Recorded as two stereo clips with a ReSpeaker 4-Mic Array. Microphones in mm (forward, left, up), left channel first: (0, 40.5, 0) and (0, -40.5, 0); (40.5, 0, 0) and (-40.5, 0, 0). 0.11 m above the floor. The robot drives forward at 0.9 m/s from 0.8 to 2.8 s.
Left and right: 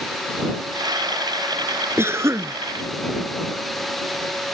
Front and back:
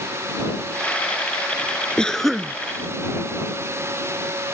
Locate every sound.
2.0 s a cough: 70° right; by 2.5 s 105° right